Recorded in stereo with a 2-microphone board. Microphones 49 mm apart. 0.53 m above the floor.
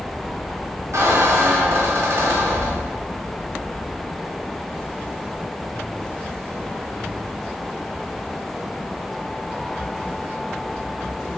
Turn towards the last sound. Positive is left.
turn(degrees=-80)